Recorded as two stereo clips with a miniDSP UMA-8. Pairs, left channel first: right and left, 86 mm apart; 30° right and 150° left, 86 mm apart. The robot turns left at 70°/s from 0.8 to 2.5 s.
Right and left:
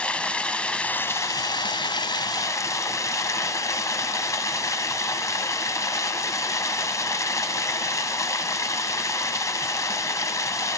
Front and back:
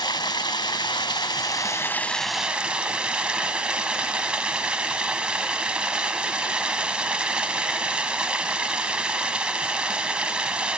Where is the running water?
15° right, 1.1 m; by 10.8 s 135° right, 1.1 m.